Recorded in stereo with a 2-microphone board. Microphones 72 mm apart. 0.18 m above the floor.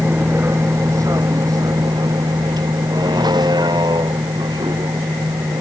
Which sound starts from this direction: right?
A vehicle, at 0.0 s.